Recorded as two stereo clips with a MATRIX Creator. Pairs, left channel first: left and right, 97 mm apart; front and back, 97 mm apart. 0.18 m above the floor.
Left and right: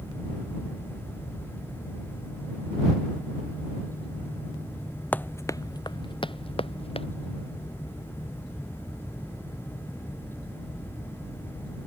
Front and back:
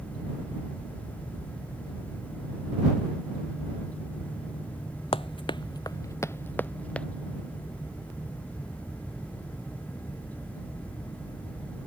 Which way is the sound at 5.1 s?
15° left.